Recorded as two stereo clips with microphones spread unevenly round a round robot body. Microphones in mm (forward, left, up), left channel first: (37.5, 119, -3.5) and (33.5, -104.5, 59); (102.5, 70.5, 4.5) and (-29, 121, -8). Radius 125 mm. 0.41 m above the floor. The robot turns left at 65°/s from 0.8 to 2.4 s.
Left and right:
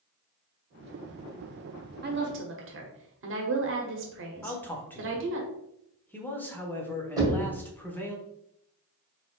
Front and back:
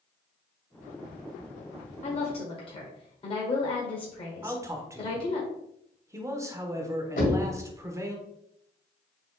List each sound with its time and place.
2.0 s a woman speaking: 45° right, 1.1 m; by 5.4 s 70° right, 1.1 m
4.4 s a man speaking: 130° left, 0.8 m
7.2 s knocking: 10° right, 1.9 m